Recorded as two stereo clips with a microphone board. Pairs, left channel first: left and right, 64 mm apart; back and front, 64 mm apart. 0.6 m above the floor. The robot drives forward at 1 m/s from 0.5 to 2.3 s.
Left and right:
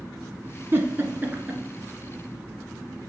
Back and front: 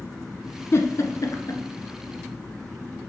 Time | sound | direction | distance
0.7 | a giggle | 140° right | 0.9 m